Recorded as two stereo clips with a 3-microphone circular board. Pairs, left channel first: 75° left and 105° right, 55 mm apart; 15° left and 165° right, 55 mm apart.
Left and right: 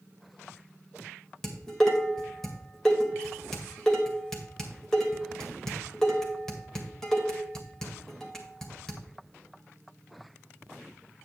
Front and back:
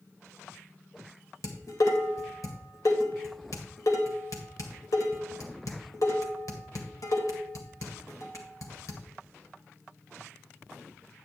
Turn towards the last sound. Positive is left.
turn(degrees=-5)